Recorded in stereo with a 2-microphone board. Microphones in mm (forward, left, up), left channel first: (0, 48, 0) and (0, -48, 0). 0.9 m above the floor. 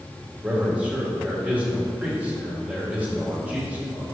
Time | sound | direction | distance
0.4 | a man speaking | 15° right (ahead or behind) | 3 m